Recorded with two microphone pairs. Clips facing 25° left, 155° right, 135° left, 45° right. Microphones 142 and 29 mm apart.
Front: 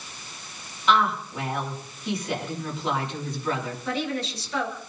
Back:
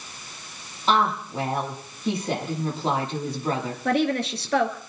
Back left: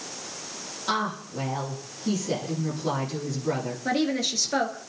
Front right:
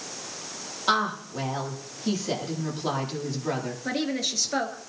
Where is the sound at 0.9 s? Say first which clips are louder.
Even, front right 3 dB; 100° right, 9 m.